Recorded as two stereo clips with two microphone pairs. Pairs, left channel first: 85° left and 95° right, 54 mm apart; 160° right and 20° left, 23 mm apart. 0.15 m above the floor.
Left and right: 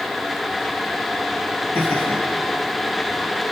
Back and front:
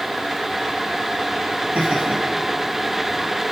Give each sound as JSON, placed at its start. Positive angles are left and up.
{"t": 1.8, "sound": "laughter", "azimuth_deg": 50, "distance_m": 4.5}